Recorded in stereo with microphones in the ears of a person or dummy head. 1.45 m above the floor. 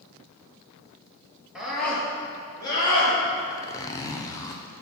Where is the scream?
Centre (ahead or behind), 2.5 m; by 3.1 s 35° left (ahead or behind), 4 m.